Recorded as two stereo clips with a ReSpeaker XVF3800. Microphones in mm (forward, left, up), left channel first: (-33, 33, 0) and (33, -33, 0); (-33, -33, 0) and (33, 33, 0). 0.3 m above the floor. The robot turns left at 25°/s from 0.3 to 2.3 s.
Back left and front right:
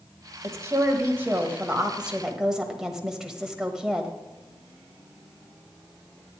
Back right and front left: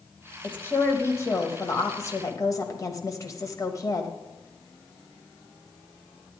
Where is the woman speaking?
80° right, 1.2 m; by 4.1 s 125° right, 1.2 m.